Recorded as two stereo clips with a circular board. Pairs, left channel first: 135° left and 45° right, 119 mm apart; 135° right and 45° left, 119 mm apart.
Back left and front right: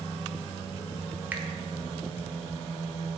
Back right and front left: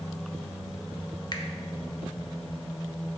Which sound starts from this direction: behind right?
A finger snap, at 1.3 s.